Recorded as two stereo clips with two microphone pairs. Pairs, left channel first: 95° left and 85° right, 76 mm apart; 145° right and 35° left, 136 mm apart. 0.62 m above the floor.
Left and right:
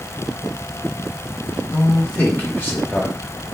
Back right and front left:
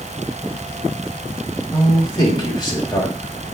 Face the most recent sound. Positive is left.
turn(degrees=160)